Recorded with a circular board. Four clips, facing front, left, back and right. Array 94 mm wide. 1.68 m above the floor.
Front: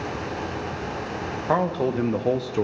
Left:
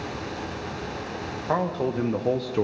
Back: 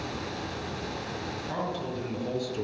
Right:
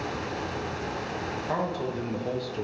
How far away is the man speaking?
About 2.5 m.